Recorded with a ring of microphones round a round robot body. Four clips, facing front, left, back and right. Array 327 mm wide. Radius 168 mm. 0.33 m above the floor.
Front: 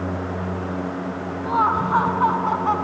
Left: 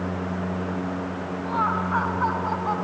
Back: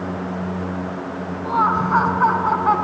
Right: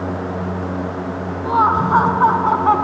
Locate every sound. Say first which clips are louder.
1.4 s laughter: right 10 dB, back 1 dB; 90° right; by 2.8 s 110° right